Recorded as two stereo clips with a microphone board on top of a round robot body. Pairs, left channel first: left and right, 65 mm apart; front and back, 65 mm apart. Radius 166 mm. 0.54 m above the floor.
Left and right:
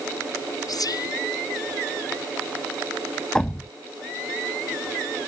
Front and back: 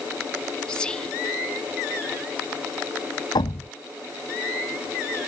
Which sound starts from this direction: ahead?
A thud, at 3.4 s.